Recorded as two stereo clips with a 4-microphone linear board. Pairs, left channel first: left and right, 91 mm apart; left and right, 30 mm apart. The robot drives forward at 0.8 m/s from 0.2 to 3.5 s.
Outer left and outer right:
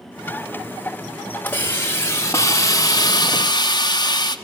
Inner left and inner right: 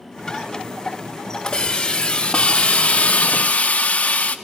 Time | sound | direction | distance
1.5 | a hiss | 25° left (ahead or behind) | 2.0 m